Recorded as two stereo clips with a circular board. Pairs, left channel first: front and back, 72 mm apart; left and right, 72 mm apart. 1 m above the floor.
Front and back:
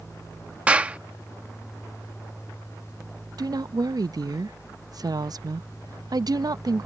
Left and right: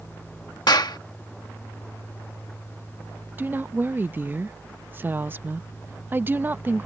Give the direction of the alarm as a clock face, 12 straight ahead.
No alarm in this recording.